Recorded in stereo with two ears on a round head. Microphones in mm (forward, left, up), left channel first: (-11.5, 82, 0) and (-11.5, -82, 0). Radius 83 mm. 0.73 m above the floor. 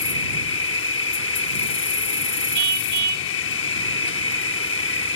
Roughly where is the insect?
Left.